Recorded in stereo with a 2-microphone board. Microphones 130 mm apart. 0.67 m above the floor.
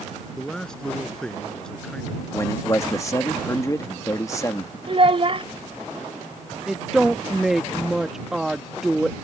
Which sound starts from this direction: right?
A child speaking, at 4.9 s.